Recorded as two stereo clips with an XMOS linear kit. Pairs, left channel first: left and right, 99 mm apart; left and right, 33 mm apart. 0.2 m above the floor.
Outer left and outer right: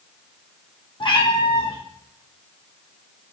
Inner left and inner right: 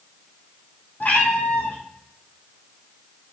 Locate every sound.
1.0 s a cat meowing: 60° left (ahead or behind), 1.8 m